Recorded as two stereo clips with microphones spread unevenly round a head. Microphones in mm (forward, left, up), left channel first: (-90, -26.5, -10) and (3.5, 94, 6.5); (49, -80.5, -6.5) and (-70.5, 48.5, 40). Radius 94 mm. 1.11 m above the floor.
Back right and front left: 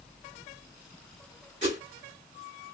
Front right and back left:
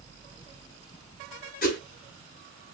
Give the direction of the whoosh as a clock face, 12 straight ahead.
12 o'clock.